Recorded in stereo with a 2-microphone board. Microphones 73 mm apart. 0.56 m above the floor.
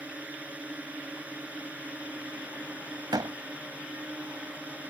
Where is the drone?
15° right (ahead or behind).